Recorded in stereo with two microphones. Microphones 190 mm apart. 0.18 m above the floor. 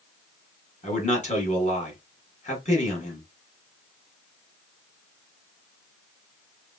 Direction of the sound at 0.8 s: 40° left (ahead or behind).